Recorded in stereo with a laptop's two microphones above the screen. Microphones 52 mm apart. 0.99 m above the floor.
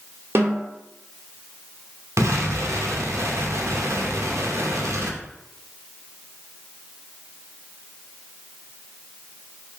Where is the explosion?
75° right (ahead or behind), 0.7 m.